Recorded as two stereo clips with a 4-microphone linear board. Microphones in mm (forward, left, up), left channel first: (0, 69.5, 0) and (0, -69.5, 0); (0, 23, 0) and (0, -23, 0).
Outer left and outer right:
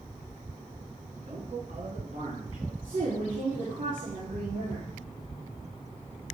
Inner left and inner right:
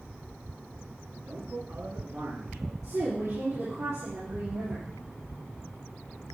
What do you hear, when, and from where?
1.3 s a man speaking: 60° right (ahead or behind), 3 m; by 2.7 s 55° right (ahead or behind), 4 m
2.8 s a woman speaking: 80° right, 6 m